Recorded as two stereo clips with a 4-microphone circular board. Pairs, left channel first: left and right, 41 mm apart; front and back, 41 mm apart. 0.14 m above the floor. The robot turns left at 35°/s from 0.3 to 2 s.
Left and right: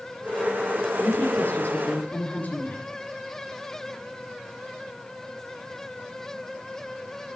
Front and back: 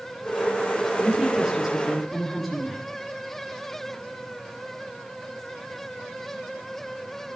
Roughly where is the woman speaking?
Behind left.